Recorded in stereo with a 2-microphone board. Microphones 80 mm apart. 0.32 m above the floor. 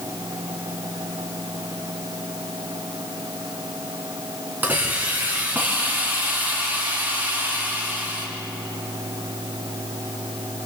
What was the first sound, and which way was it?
A hiss, 20° right (ahead or behind).